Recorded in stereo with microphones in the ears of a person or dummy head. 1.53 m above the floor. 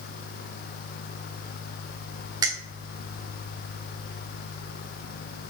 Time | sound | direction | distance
2.4 | a finger snap | 25° right (ahead or behind) | 0.6 m